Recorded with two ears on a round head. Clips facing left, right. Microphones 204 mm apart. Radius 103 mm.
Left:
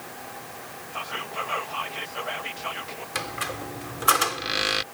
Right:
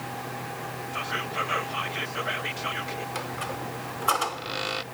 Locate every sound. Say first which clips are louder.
0.9 s whispering: even; 25° right (ahead or behind)
3.1 s a squeak: even; 25° left (ahead or behind)